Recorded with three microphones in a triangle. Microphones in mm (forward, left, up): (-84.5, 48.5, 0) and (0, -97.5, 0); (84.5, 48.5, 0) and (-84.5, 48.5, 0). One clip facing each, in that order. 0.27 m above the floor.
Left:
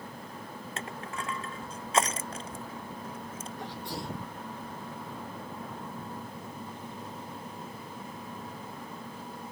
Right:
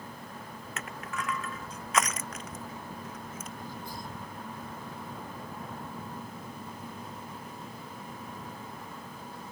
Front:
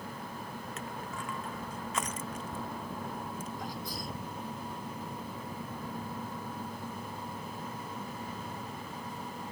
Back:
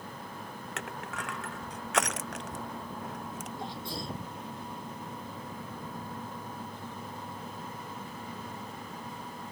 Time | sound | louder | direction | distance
0.8 | crushing | right 1 dB, back 3 dB | straight behind | ?
3.6 | a sneeze | left 3 dB, back 1 dB | 120° left | ?